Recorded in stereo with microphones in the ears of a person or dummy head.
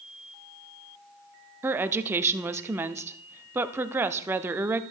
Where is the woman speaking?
10° right (ahead or behind), 0.6 m.